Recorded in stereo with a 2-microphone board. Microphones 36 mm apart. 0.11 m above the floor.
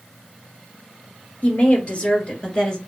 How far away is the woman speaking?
About 1.9 m.